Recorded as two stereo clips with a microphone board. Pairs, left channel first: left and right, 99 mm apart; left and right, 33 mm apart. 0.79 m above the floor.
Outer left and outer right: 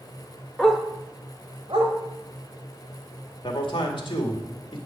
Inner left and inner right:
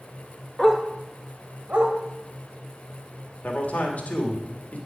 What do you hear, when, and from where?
0.6 s a dog barking: 10° left (ahead or behind), 0.9 m; by 1.9 s 70° right (ahead or behind), 1.8 m
3.4 s a man speaking: 60° left (ahead or behind), 1.7 m